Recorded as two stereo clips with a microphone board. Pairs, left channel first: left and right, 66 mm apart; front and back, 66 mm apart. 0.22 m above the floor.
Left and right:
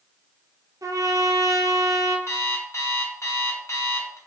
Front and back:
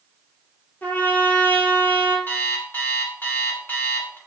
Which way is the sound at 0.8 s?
60° right.